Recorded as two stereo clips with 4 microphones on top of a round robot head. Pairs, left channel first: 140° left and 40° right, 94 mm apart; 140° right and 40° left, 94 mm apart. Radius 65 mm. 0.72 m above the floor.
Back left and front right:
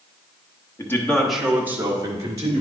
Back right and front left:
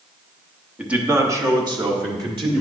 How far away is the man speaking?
About 1.2 m.